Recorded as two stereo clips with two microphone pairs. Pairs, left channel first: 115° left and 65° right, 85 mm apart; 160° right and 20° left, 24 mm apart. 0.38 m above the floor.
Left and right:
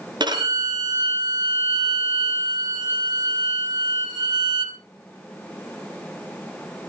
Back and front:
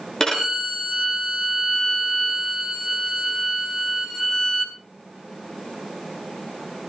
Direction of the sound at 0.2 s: 95° right.